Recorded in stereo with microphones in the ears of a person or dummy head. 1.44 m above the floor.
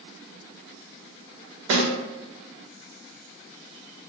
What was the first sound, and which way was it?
A snare drum, 70° right (ahead or behind).